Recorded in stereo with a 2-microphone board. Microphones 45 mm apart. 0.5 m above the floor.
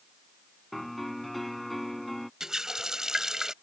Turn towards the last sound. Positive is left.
turn(degrees=-15)  # may be behind; listen again after turning